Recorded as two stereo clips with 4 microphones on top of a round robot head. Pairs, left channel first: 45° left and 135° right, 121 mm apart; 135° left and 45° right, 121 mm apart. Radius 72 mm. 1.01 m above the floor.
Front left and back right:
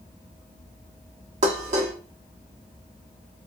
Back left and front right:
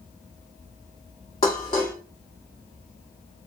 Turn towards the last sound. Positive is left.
turn(degrees=-170)